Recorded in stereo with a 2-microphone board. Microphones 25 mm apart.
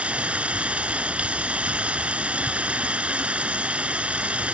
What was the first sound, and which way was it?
Running water, 50° right (ahead or behind).